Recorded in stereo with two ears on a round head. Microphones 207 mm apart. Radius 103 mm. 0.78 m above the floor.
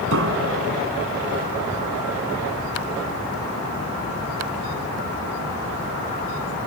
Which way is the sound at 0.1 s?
60° right (ahead or behind).